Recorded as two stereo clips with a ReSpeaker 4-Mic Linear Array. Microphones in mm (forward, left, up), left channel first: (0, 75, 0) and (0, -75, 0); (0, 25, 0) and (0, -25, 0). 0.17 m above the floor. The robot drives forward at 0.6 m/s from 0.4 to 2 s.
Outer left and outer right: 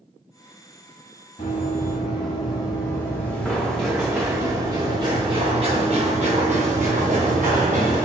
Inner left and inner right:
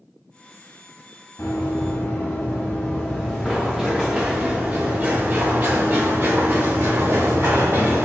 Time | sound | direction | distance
1.4 | running footsteps | 55° left (ahead or behind) | 1.6 m